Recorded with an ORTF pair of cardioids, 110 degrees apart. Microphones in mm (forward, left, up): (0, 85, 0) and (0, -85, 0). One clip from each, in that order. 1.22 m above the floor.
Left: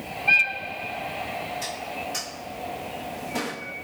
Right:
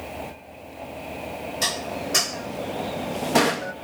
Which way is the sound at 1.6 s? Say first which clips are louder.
Right 5 dB; 55° right.